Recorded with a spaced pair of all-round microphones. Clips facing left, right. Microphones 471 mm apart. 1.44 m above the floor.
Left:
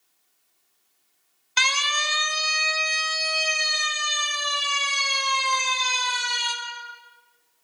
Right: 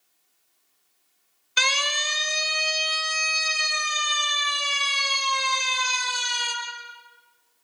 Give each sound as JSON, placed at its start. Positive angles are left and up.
{"t": 1.6, "sound": "a siren", "side_deg": 15, "distance_m": 2.0}